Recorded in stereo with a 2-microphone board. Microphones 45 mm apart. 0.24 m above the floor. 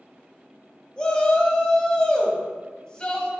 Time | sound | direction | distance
1.0 | a shout | 20° left (ahead or behind) | 1.1 m